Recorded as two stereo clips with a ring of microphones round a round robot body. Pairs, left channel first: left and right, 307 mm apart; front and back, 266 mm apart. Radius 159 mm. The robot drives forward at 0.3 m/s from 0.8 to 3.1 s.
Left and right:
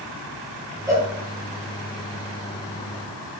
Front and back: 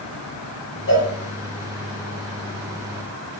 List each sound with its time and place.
0.9 s a cowbell: 15° right, 2 m